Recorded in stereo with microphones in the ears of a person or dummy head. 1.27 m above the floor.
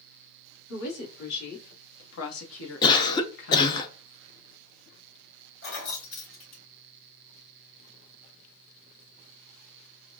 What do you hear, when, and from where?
0.7 s a woman speaking: 60° left (ahead or behind), 1.8 m; by 3.8 s 45° left (ahead or behind), 0.9 m
2.8 s a cough: 25° left (ahead or behind), 0.5 m
5.6 s keys jangling: 50° left (ahead or behind), 2.5 m